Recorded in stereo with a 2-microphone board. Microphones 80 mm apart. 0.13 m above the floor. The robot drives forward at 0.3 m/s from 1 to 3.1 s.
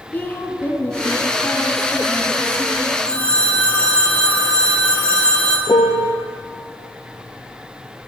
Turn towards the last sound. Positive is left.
turn(degrees=75)  # may be behind; listen again after turning